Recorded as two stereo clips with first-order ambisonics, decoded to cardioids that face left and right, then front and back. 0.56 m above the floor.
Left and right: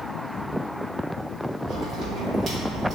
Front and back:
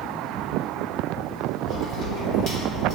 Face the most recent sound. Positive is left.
turn(degrees=-25)